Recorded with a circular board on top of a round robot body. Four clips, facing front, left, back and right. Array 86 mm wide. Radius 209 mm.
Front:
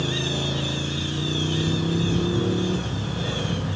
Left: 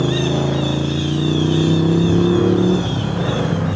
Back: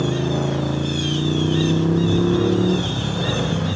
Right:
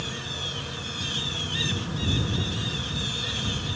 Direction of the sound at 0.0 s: 115° left.